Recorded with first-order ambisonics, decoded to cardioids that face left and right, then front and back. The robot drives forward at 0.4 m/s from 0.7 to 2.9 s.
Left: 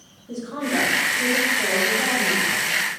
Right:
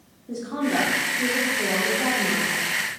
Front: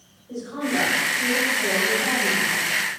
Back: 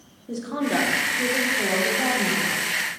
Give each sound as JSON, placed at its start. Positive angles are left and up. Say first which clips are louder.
{"t": 0.3, "sound": "a woman speaking", "louder": "even, back 1 dB", "azimuth_deg": -165, "distance_m": 1.2}